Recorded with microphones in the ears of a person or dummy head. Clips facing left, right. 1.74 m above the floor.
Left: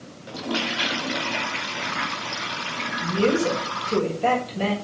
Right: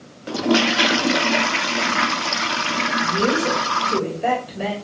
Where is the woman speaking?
15° right (ahead or behind), 7 m.